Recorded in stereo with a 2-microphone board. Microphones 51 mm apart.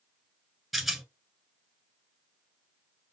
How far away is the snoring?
I don't hear snoring.